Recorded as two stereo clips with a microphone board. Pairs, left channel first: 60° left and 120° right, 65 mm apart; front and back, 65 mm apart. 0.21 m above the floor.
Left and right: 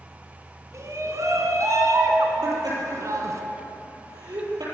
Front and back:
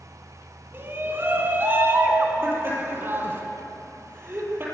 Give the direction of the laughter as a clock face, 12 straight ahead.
4 o'clock.